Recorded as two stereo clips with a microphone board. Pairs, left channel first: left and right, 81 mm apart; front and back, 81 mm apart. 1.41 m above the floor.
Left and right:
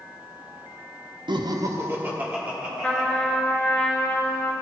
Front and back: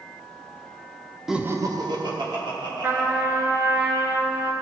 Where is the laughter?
95° right, 0.5 m; by 3.1 s 170° right, 2.5 m.